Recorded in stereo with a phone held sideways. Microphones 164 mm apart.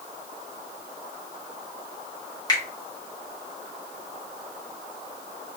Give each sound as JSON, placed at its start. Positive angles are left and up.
{"t": 2.5, "sound": "a finger snap", "side_deg": 25, "distance_m": 1.0}